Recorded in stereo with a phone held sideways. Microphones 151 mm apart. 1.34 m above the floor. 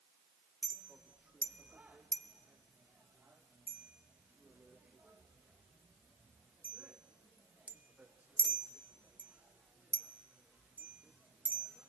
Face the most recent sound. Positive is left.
turn(degrees=-10)  # may be behind; listen again after turning